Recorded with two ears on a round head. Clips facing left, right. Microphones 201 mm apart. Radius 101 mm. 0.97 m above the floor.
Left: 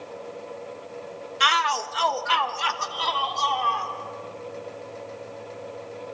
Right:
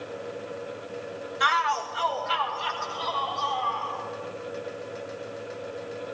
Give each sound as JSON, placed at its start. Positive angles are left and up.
{"t": 1.4, "sound": "a shout", "side_deg": 35, "distance_m": 1.0}